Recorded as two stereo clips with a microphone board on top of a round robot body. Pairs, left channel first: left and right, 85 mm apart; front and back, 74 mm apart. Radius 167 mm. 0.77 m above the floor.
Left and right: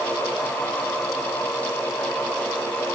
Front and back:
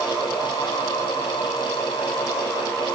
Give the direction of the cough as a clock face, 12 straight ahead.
I don't hear a cough.